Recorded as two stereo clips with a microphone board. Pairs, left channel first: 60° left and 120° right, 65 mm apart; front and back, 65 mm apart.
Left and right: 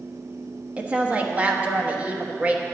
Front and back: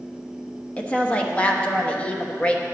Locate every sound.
0.8 s a woman speaking: 65° right, 1.1 m